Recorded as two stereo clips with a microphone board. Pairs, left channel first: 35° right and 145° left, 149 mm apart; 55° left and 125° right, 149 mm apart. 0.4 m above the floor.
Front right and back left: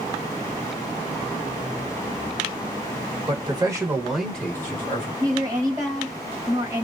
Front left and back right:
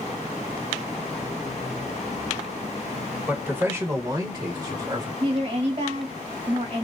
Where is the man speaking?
165° left, 1.2 m; by 5.1 s 80° right, 1.3 m.